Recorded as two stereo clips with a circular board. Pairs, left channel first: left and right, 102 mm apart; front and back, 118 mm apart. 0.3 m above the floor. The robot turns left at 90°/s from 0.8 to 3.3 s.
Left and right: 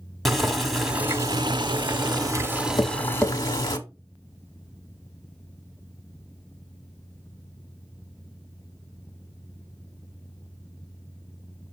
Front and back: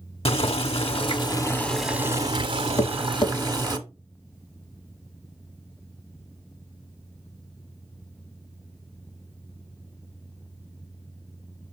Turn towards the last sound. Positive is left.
turn(degrees=5)